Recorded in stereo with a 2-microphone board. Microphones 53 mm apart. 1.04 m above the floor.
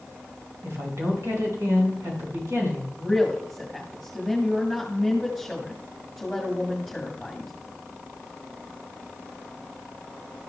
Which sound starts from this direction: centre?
A woman speaking, at 3.0 s.